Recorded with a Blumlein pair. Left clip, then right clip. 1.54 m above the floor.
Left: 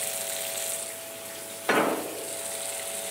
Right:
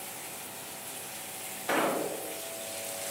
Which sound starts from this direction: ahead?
An explosion, at 1.7 s.